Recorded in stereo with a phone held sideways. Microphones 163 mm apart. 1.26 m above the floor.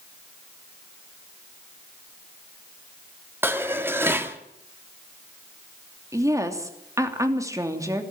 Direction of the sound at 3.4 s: 15° right (ahead or behind).